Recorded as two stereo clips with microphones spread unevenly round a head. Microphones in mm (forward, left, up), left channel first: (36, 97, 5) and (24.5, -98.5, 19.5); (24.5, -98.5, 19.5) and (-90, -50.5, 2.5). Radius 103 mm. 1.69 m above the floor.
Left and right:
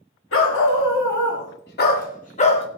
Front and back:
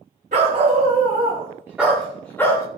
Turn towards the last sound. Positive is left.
turn(degrees=30)